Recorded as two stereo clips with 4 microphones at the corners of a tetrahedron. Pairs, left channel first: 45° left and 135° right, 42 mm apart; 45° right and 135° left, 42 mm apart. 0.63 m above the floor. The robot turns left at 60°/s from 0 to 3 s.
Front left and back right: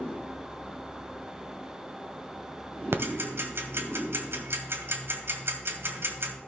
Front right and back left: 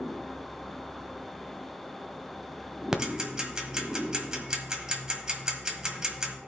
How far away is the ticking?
About 1.3 m.